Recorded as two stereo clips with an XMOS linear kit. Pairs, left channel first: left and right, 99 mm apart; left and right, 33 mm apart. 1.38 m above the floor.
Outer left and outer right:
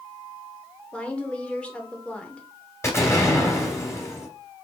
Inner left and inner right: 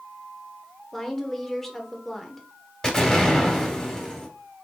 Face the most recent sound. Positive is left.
turn(degrees=30)  # may be behind; listen again after turning